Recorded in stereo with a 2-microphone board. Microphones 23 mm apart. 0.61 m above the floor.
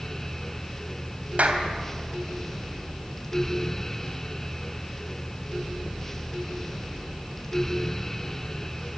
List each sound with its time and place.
1.4 s a clap: 75° right (ahead or behind), 3 m